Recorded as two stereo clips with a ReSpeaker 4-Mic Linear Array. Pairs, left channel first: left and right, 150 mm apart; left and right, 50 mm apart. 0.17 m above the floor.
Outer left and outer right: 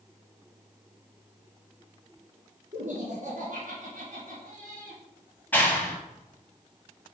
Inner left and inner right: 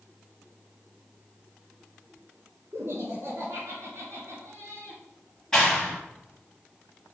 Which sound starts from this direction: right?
Laughter, at 2.7 s.